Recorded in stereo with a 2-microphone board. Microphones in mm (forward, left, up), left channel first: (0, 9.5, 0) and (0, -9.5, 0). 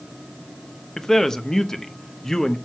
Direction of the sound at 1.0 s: 25° left (ahead or behind).